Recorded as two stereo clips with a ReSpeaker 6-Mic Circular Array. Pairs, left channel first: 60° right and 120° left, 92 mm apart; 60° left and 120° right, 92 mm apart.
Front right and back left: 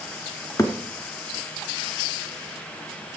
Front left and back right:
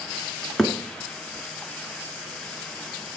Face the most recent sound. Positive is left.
turn(degrees=-25)